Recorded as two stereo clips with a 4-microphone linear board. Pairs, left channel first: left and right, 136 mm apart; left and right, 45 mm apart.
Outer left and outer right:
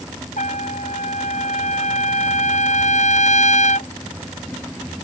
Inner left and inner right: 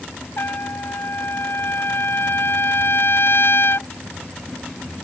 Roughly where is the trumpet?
Left.